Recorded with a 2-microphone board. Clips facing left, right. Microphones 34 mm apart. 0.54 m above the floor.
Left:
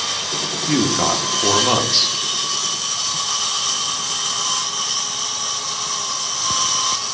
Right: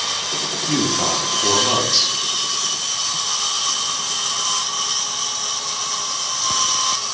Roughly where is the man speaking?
Left.